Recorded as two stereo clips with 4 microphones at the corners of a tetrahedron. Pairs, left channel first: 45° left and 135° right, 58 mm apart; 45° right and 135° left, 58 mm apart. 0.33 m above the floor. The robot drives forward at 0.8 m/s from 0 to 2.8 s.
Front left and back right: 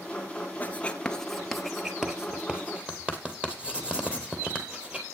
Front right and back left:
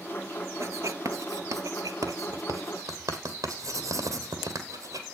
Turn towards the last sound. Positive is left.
turn(degrees=150)